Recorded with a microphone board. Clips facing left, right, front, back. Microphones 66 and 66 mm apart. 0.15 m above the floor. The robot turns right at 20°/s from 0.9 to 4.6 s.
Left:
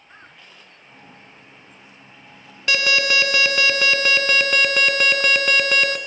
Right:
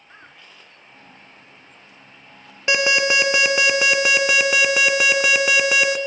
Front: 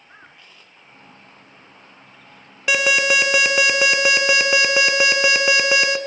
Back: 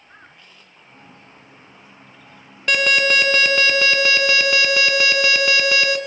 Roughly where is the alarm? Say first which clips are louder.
Right 2 dB, even; ahead right.